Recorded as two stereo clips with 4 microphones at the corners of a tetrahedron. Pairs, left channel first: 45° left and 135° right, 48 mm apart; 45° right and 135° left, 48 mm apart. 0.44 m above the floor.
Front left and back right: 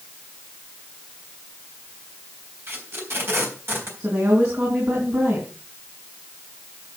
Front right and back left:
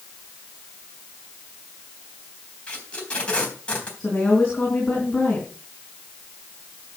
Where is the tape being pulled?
115° right, 3.5 m.